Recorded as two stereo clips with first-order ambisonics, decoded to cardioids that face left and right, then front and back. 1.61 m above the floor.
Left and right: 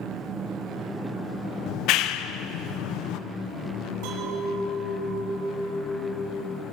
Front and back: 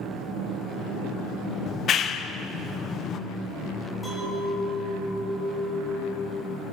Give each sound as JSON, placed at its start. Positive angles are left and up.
{"t": 1.7, "sound": "a clap", "azimuth_deg": 55, "distance_m": 0.9}
{"t": 4.0, "sound": "a clink", "azimuth_deg": -75, "distance_m": 10.0}